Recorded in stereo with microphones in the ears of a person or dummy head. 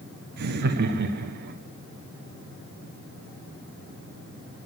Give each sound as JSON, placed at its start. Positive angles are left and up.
{"t": 0.4, "sound": "laughter", "side_deg": -60, "distance_m": 1.5}